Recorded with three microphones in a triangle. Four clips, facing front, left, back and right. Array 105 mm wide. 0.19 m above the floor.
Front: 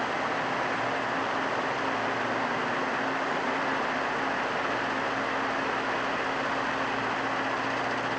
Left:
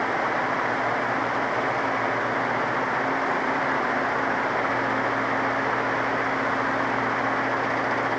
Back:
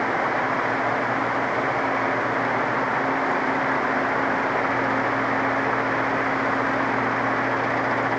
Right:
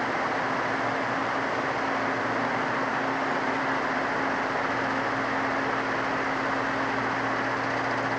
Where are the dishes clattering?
I don't hear dishes clattering.